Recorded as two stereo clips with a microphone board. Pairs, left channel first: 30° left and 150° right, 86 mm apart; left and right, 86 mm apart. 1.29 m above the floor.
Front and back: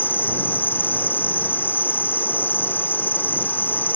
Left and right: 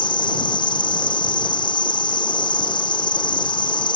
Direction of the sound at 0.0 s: 95° left.